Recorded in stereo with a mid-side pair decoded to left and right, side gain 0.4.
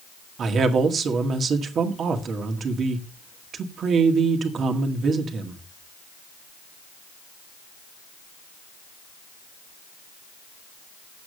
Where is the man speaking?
60° right, 1.9 m.